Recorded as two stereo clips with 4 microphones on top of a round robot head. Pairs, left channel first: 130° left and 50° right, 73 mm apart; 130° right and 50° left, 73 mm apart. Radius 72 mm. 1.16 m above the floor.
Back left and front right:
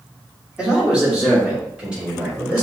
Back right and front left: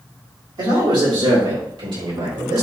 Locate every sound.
0.6 s a man speaking: 25° left, 2 m; by 2.6 s 30° left, 3.5 m